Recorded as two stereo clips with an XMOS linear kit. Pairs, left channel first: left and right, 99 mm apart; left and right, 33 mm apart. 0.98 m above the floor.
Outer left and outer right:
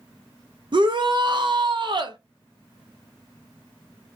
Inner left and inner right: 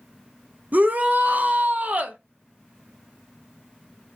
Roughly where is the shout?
Right.